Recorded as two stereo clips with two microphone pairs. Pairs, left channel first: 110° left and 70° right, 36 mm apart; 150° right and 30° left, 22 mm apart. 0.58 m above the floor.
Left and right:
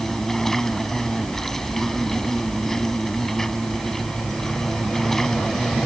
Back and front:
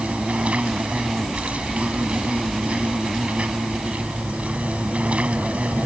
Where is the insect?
35° left.